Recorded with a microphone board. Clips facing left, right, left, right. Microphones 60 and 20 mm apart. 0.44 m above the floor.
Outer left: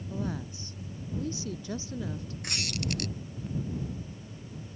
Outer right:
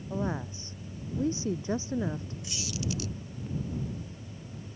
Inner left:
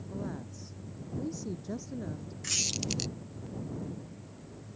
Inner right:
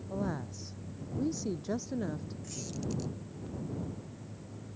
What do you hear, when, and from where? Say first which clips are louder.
0.1 s a woman speaking: outer right 3 dB, inner right 4 dB; 25° right (ahead or behind)
2.4 s a squeak: outer left 2 dB, inner left 9 dB; 60° left (ahead or behind)